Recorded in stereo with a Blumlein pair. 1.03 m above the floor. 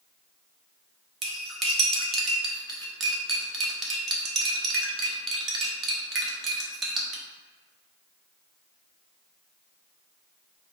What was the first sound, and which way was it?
Cutlery clinking, 25° right.